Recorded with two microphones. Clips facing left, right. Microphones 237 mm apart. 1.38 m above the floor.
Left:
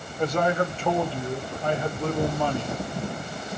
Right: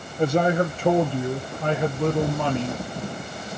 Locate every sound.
0.2 s a man speaking: 25° right (ahead or behind), 1.1 m; by 2.8 s 80° right, 1.7 m